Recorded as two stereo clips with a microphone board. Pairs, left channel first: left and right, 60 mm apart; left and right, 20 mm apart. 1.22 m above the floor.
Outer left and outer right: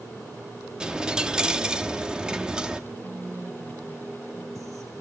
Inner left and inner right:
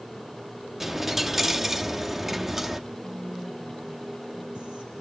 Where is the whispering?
70° right (ahead or behind), 6 m.